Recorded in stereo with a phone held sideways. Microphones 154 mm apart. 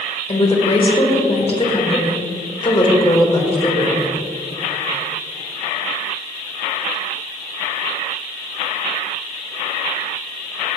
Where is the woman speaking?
40° left (ahead or behind), 2.0 m.